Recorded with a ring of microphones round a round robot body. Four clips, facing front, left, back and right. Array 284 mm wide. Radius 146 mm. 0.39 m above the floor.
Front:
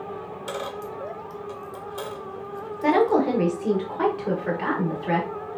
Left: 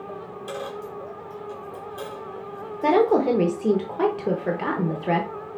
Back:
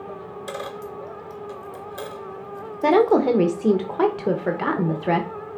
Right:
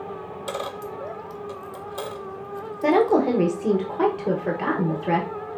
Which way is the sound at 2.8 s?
175° left.